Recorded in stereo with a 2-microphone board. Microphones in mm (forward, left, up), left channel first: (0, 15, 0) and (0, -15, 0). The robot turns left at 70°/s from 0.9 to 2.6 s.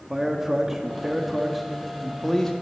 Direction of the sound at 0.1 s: 15° right (ahead or behind).